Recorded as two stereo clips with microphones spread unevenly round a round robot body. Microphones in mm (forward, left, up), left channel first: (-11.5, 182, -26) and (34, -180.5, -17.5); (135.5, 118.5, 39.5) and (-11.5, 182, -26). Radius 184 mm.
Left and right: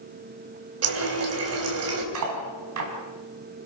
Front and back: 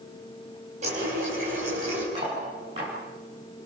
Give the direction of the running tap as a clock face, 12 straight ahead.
5 o'clock.